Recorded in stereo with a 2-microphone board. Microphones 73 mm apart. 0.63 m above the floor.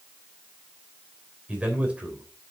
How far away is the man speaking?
About 3 m.